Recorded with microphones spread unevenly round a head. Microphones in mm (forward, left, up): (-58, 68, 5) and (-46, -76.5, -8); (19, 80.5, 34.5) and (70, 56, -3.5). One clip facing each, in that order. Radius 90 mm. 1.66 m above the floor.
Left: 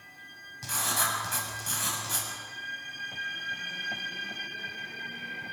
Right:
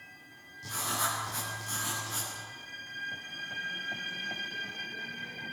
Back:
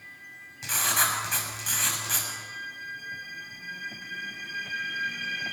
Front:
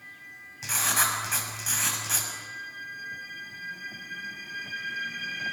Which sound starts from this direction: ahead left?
Writing, at 0.6 s.